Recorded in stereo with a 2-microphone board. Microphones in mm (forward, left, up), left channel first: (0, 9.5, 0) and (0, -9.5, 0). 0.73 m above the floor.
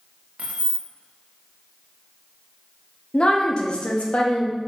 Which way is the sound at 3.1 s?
45° left (ahead or behind).